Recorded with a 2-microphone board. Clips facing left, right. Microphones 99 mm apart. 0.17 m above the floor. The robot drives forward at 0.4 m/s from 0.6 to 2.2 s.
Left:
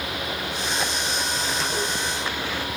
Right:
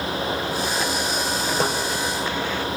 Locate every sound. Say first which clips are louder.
1.6 s a snare drum: right 8 dB; 55° right (ahead or behind), 7 m